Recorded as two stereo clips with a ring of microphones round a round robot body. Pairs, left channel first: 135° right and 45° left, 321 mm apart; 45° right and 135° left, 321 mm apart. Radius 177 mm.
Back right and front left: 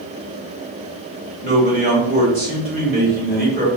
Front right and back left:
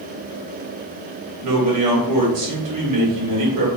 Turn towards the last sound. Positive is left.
turn(degrees=110)